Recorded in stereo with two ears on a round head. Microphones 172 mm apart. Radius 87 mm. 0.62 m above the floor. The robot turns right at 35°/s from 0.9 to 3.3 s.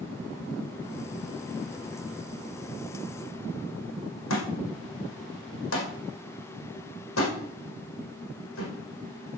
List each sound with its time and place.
4.3 s a thud: 85° left, 6 m